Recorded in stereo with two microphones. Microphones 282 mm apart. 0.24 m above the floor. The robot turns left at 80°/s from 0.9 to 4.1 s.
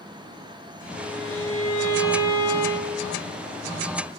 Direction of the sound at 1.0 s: 160° right.